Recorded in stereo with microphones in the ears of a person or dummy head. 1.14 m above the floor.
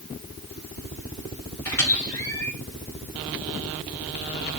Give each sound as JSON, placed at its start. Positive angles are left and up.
{"t": 1.6, "sound": "a squeak", "side_deg": 10, "distance_m": 3.0}